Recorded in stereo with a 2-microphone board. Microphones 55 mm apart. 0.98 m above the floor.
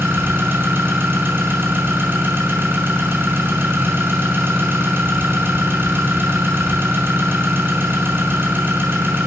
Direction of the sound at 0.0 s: 35° right (ahead or behind).